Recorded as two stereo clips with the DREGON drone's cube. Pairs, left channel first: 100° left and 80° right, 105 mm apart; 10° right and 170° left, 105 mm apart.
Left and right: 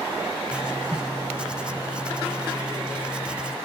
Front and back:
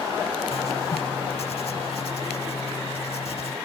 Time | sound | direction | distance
0.5 | writing | straight ahead | ?